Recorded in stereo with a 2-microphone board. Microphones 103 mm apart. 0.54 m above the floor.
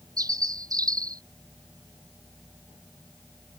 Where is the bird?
35° right (ahead or behind).